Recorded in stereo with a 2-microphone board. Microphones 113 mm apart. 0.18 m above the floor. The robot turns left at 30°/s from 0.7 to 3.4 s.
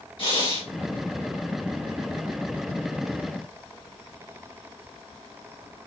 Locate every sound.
0.2 s breathing: 45° left (ahead or behind), 1.5 m